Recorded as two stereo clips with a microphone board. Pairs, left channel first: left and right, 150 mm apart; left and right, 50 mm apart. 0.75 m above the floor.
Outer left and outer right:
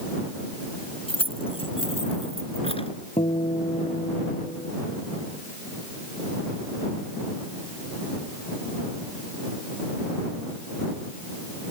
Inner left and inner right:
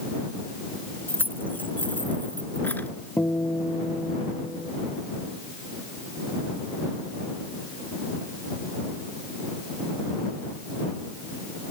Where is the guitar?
45° left (ahead or behind).